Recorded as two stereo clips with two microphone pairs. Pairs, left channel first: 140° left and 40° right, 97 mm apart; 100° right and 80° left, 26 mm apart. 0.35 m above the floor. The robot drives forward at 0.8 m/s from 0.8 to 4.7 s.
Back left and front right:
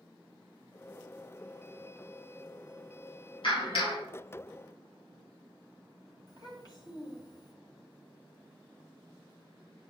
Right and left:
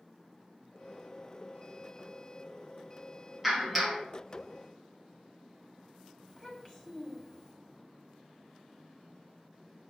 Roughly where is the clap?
Behind left.